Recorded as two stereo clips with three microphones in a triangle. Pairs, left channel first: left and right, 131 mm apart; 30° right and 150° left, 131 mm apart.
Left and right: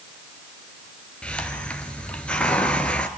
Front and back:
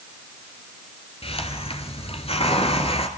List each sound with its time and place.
1.2 s a hiss: 10° left, 2.5 m